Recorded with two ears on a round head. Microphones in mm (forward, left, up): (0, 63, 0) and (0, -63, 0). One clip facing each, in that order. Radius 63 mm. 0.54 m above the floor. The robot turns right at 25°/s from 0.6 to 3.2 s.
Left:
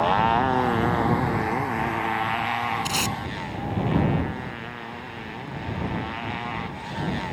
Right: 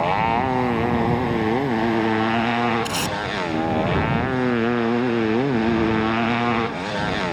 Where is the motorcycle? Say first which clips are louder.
Right 1 dB; 170° right; by 7.3 s 105° right.